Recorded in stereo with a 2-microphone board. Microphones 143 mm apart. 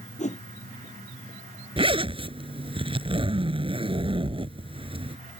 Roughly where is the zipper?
Right.